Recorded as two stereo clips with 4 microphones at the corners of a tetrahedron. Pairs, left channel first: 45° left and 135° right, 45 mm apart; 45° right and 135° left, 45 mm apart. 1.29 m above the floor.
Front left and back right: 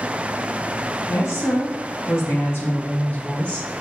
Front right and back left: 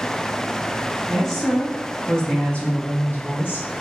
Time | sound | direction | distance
1.1 | a woman speaking | 45° left | 3 m